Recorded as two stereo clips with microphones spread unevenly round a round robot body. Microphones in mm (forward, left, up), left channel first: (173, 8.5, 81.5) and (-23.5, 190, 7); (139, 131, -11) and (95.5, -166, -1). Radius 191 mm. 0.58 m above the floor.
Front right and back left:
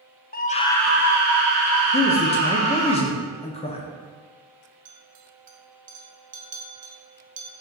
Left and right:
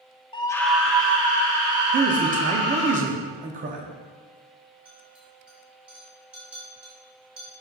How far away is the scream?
About 0.7 m.